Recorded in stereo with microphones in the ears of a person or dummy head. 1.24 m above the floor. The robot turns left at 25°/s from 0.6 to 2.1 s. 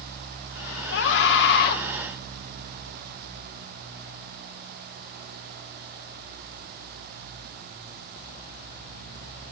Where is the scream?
90° left, 3 m; by 1.8 s 65° left (ahead or behind), 3 m.